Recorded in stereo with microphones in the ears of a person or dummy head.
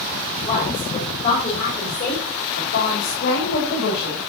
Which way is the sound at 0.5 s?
35° left (ahead or behind).